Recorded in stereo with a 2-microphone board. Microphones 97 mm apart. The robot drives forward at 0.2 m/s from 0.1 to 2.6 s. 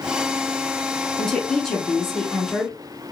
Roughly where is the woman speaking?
Centre.